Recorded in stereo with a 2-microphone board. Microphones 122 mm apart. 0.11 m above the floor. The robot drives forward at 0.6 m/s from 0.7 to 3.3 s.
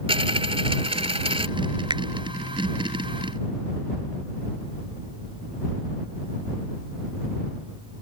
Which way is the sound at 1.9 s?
40° right (ahead or behind).